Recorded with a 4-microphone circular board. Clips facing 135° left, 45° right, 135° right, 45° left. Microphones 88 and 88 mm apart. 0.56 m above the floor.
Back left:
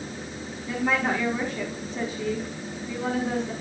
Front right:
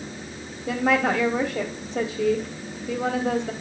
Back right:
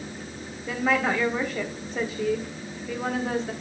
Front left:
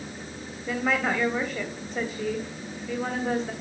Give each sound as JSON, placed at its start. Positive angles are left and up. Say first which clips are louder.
{"t": 0.7, "sound": "a woman speaking", "louder": "front right 4 dB, back right 2 dB", "azimuth_deg": -45, "distance_m": 3.0}